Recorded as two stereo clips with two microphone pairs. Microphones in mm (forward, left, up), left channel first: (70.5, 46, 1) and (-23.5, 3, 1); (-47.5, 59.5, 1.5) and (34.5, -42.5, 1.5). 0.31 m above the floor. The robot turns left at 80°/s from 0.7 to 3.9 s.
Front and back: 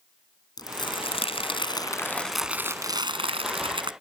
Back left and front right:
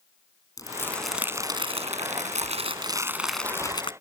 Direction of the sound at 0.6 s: 70° left.